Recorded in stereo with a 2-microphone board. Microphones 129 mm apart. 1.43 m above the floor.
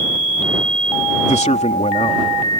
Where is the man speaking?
65° left (ahead or behind); by 2.6 s 50° left (ahead or behind).